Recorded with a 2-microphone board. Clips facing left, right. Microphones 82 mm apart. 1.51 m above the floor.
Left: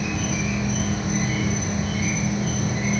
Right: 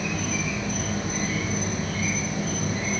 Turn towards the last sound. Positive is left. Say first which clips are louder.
# left 2 dB
turn(degrees=20)  # may be behind; listen again after turning